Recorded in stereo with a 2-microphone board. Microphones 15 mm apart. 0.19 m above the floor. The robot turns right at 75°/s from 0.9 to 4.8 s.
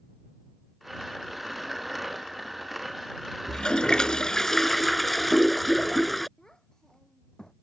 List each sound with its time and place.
3.5 s a toilet flushing: 70° left; by 6.3 s 170° left
6.4 s a child speaking: 45° left (ahead or behind)